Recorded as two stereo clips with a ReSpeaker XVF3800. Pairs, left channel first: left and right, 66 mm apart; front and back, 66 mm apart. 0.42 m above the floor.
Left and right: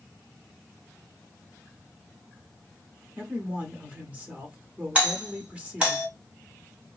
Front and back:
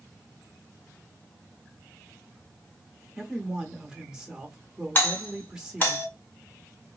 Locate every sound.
3.2 s a man speaking: 110° right, 1.0 m
5.0 s a doorbell: 35° right, 2 m